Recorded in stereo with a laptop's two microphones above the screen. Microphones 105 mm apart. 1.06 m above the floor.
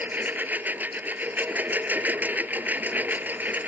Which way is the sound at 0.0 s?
15° right (ahead or behind).